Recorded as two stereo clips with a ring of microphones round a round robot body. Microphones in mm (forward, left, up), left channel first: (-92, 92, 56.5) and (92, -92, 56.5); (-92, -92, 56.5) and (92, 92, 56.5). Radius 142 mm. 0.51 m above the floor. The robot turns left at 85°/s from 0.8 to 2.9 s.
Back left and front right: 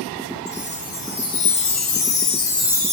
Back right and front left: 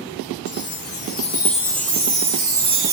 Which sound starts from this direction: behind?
A chime, at 0.5 s.